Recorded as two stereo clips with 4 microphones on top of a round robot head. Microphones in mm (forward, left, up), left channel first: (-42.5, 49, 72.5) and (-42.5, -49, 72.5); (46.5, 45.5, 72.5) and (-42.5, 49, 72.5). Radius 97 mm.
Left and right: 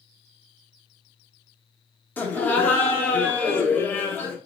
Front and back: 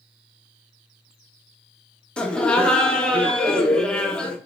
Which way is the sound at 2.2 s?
55° left.